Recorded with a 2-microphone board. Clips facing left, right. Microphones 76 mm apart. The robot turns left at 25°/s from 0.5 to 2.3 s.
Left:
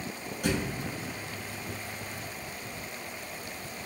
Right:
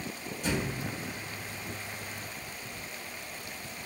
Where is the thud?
90° left, 1.1 m; by 0.9 s 80° left, 1.1 m.